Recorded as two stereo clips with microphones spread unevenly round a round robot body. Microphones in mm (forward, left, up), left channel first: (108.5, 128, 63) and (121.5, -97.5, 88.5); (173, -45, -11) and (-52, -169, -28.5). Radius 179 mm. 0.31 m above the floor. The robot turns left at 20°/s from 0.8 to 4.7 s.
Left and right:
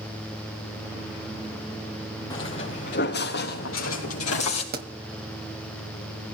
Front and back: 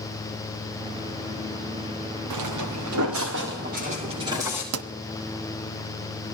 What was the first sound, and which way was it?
Footsteps, 170° left.